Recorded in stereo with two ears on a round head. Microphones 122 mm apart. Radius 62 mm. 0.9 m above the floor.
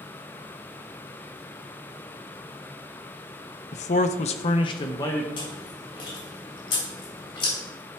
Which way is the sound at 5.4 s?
35° left (ahead or behind).